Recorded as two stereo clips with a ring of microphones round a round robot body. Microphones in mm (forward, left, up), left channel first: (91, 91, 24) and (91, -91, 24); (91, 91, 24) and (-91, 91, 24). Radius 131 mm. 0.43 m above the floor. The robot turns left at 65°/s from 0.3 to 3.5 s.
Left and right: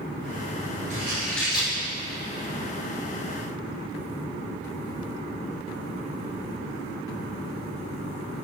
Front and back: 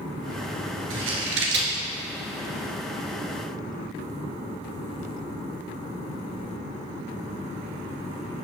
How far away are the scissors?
About 2.5 m.